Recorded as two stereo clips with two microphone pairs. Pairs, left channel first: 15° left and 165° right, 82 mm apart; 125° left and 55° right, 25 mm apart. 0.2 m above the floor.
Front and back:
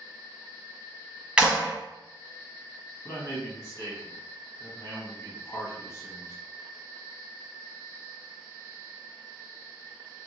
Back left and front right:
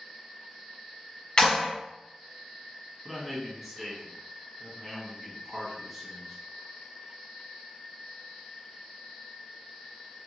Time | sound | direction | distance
1.4 | a clap | 125° left | 0.9 m
3.0 | a man speaking | 25° left | 1.1 m